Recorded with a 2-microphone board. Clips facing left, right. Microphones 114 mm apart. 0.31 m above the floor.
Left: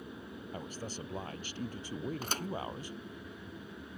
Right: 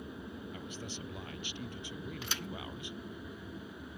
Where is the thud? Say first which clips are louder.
Left 4 dB; 40° left (ahead or behind).